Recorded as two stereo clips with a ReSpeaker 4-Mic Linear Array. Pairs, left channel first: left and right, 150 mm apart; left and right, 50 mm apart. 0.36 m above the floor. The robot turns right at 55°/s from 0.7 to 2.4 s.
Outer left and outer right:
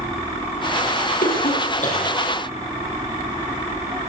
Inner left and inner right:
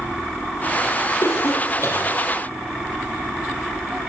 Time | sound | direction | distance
1.2 | a cough | 85° left | 9.5 m